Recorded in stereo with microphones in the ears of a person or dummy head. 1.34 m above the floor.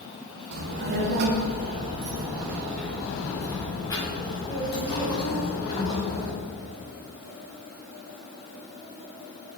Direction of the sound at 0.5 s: 65° right (ahead or behind).